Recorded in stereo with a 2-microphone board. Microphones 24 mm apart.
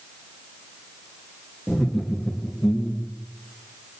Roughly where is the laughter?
Centre.